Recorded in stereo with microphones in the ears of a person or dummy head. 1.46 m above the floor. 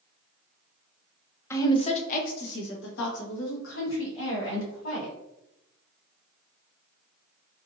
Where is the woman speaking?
15° left (ahead or behind), 0.6 m; by 5.2 s 80° left, 2.5 m.